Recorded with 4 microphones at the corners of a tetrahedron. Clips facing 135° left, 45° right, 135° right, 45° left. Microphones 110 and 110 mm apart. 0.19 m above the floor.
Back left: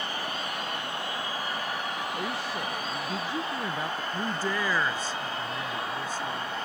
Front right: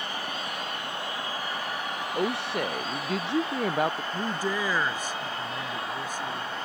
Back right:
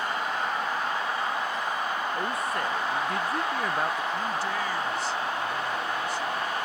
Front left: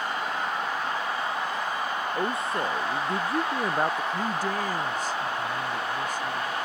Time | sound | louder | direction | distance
2.1 | a woman speaking | front right 4 dB, front left 1 dB | 20° right | ?
4.1 | a man speaking | front right 1 dB, front left 1 dB | 25° left | ?